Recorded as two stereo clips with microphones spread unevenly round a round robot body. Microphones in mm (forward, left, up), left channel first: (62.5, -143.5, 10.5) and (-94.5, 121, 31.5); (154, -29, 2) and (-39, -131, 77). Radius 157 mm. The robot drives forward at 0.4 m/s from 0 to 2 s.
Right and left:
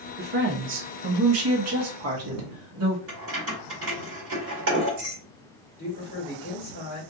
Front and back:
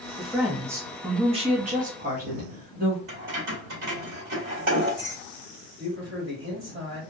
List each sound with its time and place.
0.2 s a woman speaking: 85° left, 0.9 m; by 3.0 s 145° left, 1.1 m
3.1 s keys jangling: 170° left, 1.9 m
5.8 s a man speaking: 115° right, 2.5 m